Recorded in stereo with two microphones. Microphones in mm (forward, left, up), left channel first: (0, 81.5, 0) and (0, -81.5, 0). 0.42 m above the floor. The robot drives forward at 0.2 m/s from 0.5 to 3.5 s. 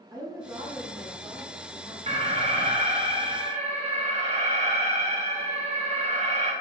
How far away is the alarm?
About 0.6 m.